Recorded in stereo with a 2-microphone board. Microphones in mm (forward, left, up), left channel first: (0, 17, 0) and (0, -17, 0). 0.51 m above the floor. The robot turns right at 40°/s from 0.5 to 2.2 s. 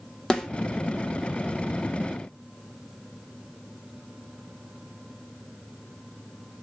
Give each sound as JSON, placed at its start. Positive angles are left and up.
{"t": 0.3, "sound": "a snare drum", "side_deg": 20, "distance_m": 1.3}